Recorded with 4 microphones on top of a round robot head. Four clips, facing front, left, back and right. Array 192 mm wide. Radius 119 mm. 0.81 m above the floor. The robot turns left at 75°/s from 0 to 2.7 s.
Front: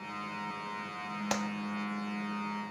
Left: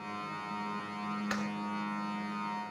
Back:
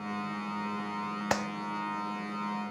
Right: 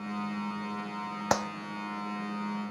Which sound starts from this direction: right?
A clap, at 1.3 s.